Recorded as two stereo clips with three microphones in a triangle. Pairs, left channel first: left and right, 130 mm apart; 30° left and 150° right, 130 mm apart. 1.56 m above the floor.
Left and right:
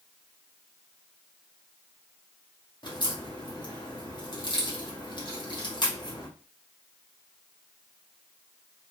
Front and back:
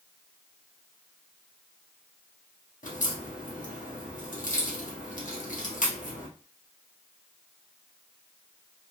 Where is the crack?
35° left, 1.1 m.